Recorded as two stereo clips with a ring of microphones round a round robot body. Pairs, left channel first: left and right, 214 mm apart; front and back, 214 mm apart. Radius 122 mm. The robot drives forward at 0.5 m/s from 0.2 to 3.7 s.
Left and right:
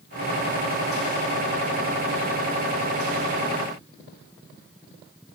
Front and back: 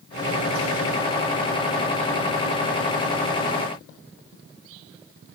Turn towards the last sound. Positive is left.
No sound to turn to.